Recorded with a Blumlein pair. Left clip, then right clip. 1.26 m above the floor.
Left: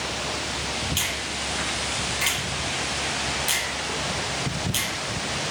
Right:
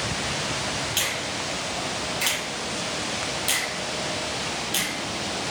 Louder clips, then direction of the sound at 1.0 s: Right 1 dB; straight ahead.